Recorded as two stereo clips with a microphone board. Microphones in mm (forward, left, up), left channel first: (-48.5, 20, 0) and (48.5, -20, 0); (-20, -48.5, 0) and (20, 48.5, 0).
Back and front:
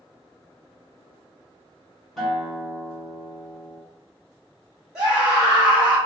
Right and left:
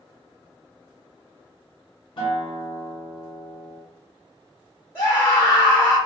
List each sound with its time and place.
2.2 s a guitar: 115° right, 1.1 m
5.0 s a scream: 100° right, 1.4 m